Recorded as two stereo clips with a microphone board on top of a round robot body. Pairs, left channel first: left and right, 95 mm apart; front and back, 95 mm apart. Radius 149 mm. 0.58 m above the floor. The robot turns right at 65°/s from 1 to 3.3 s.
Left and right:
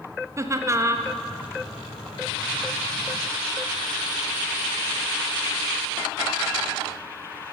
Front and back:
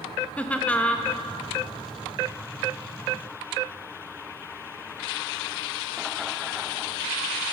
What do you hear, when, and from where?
0.4 s laughter: 65° right, 0.7 m; by 1.1 s 60° right, 0.7 m